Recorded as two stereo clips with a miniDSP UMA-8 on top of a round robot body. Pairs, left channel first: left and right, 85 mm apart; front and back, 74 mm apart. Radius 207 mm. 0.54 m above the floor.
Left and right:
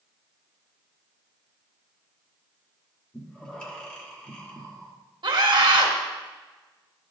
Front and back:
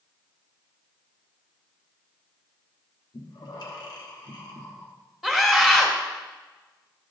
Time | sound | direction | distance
3.1 | breathing | 10° left | 1.5 m
5.2 | a scream | 90° right | 1.7 m